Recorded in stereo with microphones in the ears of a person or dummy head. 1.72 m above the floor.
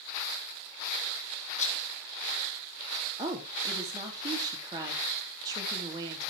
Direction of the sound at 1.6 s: 50° left (ahead or behind).